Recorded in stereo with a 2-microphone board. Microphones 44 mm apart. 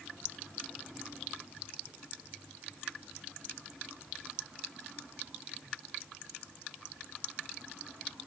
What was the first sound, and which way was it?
Only background noise.